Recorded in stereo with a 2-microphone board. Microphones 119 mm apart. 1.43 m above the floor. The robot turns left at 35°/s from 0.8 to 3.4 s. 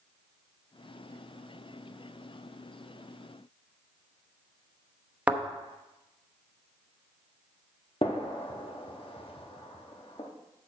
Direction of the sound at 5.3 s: 10° right (ahead or behind).